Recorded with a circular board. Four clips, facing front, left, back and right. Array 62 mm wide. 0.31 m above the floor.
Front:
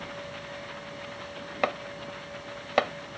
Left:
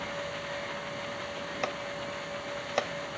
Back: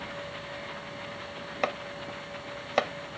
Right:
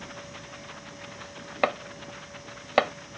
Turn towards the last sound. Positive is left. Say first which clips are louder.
# right 9 dB, front 2 dB
turn(degrees=-75)